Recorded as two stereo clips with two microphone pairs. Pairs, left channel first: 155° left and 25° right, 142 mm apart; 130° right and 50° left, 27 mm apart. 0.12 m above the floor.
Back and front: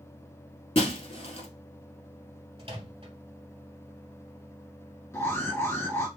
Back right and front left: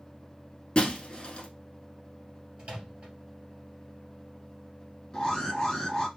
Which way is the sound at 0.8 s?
Straight behind.